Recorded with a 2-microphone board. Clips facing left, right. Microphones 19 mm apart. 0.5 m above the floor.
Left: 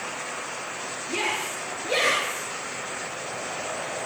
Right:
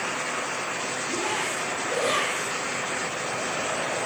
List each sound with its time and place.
1.1 s a shout: 80° left, 10 m; by 2.5 s 85° left, 9 m